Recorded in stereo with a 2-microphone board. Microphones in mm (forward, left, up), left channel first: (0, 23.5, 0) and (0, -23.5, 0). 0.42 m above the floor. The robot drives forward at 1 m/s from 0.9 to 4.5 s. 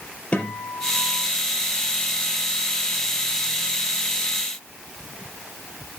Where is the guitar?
30° left (ahead or behind), 4 m.